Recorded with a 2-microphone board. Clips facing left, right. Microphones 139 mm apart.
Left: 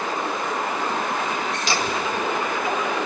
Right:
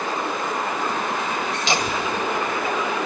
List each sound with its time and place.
1.7 s laughter: 20° right (ahead or behind), 1.4 m; by 2.9 s 25° left (ahead or behind), 1.7 m